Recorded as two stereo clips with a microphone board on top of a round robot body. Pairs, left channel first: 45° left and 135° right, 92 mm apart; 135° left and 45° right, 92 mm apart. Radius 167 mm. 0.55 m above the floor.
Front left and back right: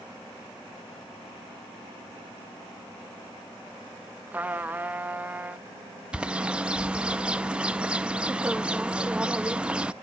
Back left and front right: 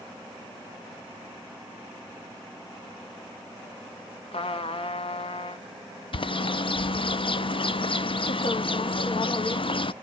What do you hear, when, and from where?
4.3 s a trumpet: 150° left, 1.1 m
6.1 s a bird: 145° left, 0.7 m